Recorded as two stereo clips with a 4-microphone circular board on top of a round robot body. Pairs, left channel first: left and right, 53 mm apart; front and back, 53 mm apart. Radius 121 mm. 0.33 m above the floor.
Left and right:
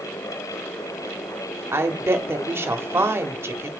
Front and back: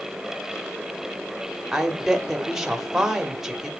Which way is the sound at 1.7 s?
100° right.